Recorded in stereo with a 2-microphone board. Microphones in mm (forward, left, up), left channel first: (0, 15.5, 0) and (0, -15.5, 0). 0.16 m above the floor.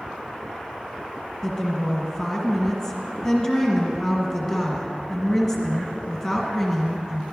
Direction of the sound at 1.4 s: Centre (ahead or behind).